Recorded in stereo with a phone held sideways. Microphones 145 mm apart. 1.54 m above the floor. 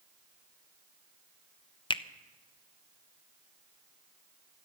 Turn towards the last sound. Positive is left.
turn(degrees=35)  # may be behind; listen again after turning